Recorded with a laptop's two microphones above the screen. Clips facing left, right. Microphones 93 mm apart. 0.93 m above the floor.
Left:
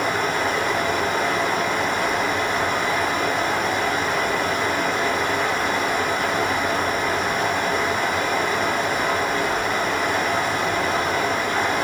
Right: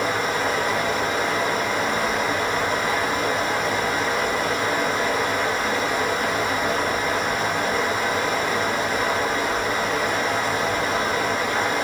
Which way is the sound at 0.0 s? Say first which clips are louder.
Left 1 dB; 60° left (ahead or behind).